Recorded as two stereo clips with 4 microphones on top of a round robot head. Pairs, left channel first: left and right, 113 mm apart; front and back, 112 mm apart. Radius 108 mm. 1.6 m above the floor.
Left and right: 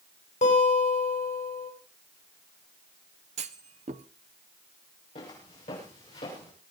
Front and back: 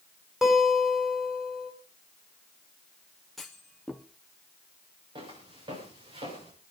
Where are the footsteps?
135° left, 8 m; by 6.5 s 140° left, 9 m.